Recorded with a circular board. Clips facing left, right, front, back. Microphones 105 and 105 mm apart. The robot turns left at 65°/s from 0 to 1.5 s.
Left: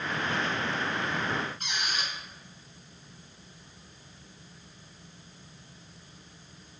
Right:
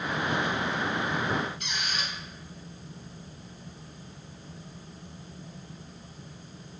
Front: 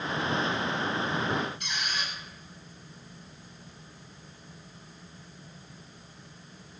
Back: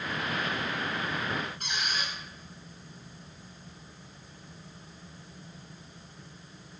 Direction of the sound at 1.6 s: 135° left.